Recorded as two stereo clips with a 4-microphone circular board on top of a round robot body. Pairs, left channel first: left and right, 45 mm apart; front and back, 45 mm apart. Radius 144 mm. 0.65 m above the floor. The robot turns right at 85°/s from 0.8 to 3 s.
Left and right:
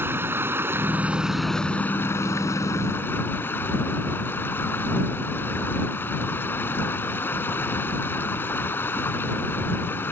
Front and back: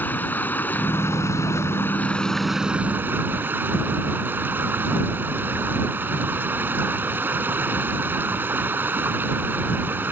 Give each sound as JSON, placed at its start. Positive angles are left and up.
{"t": 0.0, "sound": "running water", "azimuth_deg": -50}